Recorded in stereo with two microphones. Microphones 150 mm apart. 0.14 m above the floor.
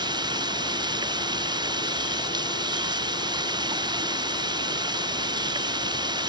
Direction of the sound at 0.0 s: 30° right (ahead or behind).